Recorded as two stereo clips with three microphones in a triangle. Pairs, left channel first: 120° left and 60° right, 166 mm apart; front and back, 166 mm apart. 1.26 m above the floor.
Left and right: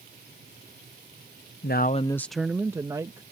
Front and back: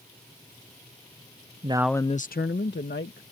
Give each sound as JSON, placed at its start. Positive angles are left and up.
{"t": 1.6, "sound": "a man speaking", "azimuth_deg": 125}